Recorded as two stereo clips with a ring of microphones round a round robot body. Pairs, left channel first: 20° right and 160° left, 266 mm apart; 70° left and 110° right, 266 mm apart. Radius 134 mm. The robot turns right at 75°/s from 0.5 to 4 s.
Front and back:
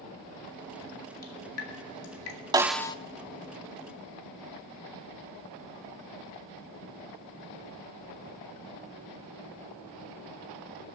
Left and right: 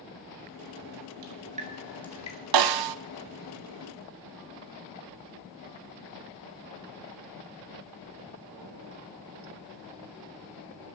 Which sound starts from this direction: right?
Dripping, at 1.2 s.